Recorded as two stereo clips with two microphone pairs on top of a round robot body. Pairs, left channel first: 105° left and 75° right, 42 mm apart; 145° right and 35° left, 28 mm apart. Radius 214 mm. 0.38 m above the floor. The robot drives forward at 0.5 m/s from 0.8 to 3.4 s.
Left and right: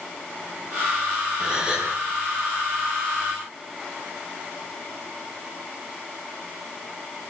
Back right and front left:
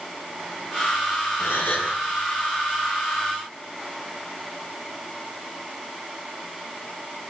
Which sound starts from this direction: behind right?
A gasp, at 1.4 s.